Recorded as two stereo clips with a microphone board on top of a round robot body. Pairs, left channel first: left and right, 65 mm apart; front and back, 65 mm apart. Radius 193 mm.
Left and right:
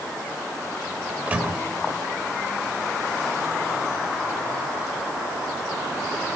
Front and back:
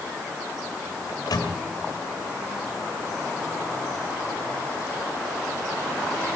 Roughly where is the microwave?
Ahead right.